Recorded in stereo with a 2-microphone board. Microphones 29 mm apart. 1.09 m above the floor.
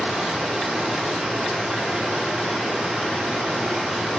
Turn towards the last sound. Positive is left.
turn(degrees=-25)  # may be behind; listen again after turning